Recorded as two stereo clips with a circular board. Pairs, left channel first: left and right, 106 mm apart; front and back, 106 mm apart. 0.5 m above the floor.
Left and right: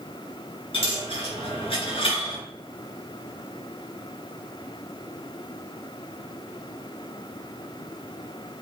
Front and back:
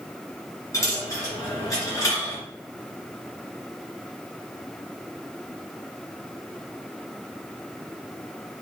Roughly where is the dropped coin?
Ahead left.